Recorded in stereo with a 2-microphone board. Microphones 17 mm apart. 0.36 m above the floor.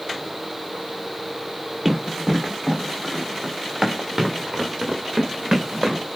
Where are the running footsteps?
10° right (ahead or behind), 5 m; by 6.0 s 25° right (ahead or behind), 2.5 m.